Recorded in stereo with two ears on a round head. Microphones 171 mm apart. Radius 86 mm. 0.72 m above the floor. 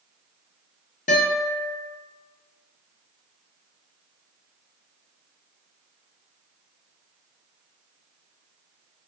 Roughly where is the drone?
I don't hear a drone.